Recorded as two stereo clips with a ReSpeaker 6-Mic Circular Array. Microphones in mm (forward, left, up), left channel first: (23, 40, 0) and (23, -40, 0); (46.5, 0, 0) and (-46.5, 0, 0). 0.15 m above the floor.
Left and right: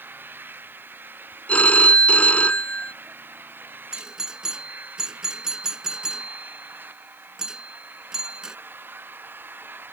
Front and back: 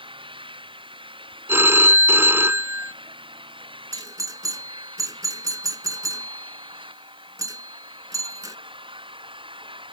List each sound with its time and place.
0.0 s an engine running: 155° right
1.5 s a phone ringing: 145° left
3.9 s a doorbell: 165° right